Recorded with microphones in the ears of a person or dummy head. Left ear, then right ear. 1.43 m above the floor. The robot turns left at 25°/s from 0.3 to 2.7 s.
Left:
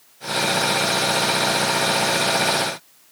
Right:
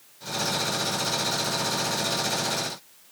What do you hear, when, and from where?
Only background noise.